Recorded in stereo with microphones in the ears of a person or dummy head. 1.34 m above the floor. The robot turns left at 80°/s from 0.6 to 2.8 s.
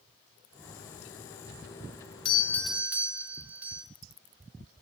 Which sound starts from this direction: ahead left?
A doorbell, at 2.2 s.